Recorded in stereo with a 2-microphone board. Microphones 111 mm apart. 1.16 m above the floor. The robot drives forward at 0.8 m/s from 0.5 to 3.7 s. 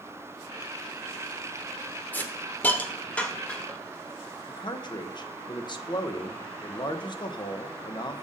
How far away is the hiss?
About 0.8 m.